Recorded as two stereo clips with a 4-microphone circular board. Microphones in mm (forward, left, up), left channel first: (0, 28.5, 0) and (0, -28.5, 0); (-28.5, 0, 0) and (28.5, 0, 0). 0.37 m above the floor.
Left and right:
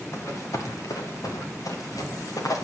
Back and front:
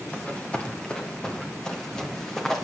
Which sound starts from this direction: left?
Running footsteps, at 0.1 s.